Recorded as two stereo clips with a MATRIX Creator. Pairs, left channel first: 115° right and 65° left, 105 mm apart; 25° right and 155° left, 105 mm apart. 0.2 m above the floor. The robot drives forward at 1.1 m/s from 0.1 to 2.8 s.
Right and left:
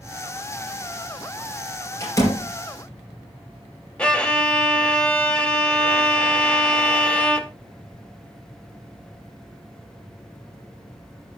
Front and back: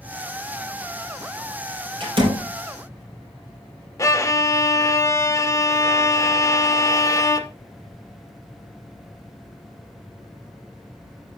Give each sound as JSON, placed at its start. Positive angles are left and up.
{"t": 2.0, "sound": "a door slam", "azimuth_deg": -170, "distance_m": 4.5}
{"t": 4.0, "sound": "a violin", "azimuth_deg": -40, "distance_m": 0.7}